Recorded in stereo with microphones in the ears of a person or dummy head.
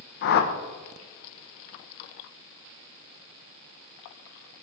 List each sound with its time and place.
0.2 s a whoosh: 55° left (ahead or behind), 1.0 m